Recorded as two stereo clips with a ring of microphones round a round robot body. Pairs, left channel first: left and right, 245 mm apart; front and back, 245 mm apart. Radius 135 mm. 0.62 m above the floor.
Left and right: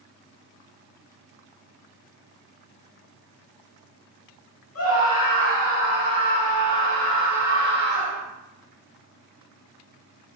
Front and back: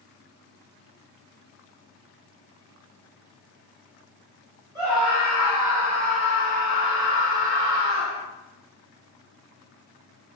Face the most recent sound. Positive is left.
turn(degrees=-105)